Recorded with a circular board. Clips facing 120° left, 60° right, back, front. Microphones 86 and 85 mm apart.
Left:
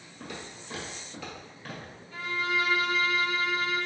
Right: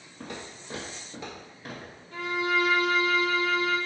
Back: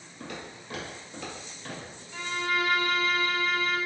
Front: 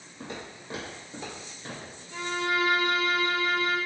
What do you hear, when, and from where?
0.2 s footsteps: 45° right, 2.0 m; by 2.0 s 10° left, 1.7 m
2.1 s a violin: 25° right, 1.2 m